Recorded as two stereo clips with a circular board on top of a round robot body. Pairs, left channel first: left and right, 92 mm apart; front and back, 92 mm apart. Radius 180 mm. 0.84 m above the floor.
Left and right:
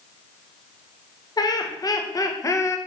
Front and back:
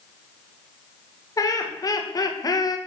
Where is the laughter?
50° left, 2 m; by 2.8 s 35° left, 1.4 m.